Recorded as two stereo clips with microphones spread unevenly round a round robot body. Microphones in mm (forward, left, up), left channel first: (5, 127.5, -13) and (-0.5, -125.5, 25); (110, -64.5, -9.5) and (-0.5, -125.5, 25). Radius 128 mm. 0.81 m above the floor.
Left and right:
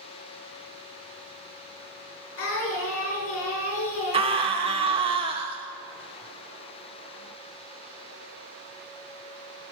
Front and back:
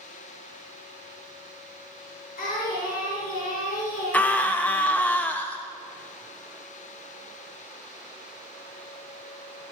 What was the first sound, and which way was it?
Singing, 50° left.